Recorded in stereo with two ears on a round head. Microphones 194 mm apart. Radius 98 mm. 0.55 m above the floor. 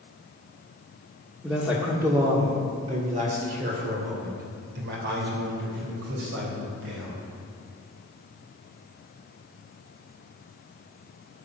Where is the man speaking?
Centre (ahead or behind), 1.6 m; by 7.3 s 70° right (ahead or behind), 4 m.